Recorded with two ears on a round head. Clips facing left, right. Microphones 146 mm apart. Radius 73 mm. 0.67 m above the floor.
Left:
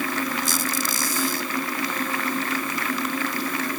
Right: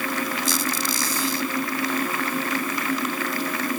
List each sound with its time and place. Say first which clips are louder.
0.5 s a squeak: right 1 dB; 45° left (ahead or behind)